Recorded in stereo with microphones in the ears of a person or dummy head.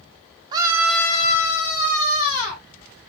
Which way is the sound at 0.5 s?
25° right (ahead or behind).